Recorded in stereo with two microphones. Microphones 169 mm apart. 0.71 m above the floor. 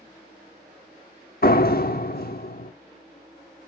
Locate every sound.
1.4 s a door slam: 70° left (ahead or behind), 1.0 m